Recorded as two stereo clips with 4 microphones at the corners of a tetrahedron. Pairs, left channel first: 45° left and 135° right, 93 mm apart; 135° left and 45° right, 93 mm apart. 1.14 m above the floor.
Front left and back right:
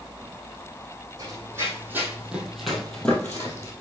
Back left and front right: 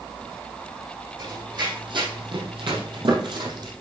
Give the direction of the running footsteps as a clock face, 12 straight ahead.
3 o'clock.